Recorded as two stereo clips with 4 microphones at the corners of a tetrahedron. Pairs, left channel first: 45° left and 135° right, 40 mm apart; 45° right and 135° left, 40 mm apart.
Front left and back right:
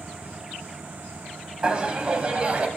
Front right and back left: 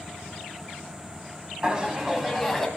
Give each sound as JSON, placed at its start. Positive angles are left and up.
{"t": 1.6, "sound": "laughter", "azimuth_deg": 175, "distance_m": 1.2}